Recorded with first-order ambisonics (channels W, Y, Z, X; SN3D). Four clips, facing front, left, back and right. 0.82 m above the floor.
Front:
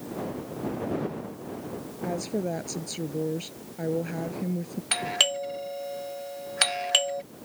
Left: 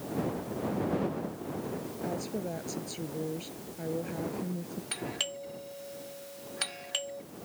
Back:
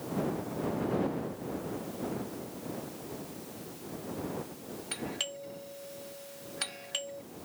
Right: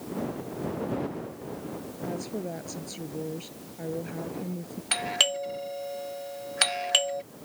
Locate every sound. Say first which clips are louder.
2.0 s a woman speaking: right 2 dB, front 8 dB; 5° right
4.9 s a doorbell: right 11 dB, front 13 dB; 40° right